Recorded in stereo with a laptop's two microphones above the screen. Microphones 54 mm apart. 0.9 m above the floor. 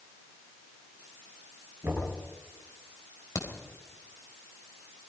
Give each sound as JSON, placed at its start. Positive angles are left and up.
{"t": 1.8, "sound": "knocking", "side_deg": -50, "distance_m": 7.5}
{"t": 3.4, "sound": "a crack", "side_deg": 85, "distance_m": 3.5}